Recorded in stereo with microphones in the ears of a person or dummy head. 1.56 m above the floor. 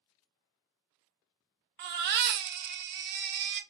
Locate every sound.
1.8 s a baby crying: 55° right (ahead or behind), 0.6 m